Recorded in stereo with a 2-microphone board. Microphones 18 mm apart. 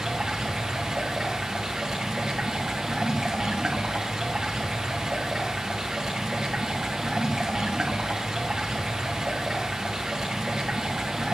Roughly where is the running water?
Right.